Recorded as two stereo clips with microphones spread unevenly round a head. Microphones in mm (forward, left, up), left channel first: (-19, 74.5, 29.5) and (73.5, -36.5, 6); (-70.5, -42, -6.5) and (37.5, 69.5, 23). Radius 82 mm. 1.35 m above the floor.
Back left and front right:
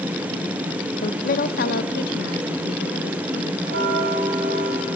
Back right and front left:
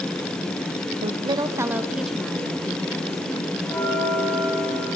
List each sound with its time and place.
1.0 s a woman speaking: 95° left, 0.8 m; by 3.5 s 155° left, 1.8 m
3.6 s a bell: 50° right, 6 m